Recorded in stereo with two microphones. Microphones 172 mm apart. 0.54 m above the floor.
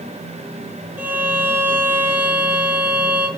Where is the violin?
15° right (ahead or behind), 4.5 m.